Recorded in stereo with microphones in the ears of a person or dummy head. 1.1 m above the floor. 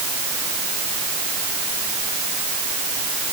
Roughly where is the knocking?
No knocking in this recording.